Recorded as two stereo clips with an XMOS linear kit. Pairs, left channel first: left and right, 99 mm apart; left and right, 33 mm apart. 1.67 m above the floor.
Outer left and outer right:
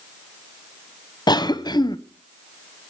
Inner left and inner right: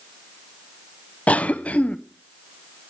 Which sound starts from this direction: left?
A cough, at 1.3 s.